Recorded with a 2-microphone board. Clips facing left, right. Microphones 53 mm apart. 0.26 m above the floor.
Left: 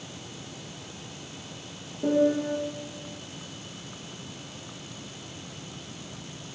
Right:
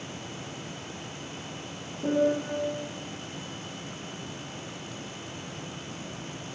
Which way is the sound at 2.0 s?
30° left (ahead or behind).